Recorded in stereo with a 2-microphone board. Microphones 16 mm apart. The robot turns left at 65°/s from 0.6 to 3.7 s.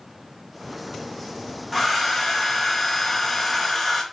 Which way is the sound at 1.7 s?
15° left (ahead or behind).